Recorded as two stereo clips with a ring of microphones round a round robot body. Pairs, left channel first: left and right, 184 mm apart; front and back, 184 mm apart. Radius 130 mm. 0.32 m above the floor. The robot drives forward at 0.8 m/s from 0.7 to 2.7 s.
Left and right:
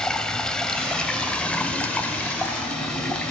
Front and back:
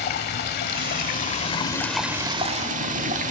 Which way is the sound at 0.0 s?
5° left.